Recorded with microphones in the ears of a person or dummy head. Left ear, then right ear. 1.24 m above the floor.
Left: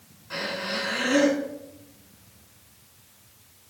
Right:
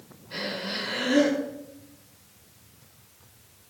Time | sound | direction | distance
0.3 | breathing | 45° left (ahead or behind) | 6.5 m